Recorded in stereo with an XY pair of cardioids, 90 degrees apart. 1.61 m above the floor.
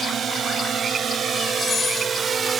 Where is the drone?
60° right; by 2.6 s 45° right.